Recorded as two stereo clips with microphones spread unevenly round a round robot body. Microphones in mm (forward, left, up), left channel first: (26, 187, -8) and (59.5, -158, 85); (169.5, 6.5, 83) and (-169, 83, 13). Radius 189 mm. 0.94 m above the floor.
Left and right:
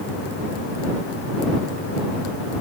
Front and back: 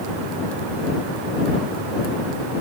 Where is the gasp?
I don't hear a gasp.